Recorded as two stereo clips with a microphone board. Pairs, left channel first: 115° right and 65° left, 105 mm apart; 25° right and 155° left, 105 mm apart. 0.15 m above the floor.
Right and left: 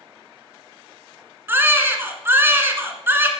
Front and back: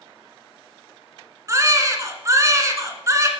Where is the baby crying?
120° left, 1.3 m.